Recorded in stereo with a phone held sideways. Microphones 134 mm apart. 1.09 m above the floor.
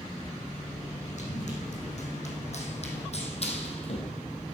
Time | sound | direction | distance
1.2 | running footsteps | 60° left (ahead or behind) | 4 m